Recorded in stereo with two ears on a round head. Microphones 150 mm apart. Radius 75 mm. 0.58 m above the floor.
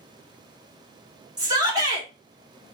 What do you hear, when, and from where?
1.4 s a shout: 25° right (ahead or behind), 1.5 m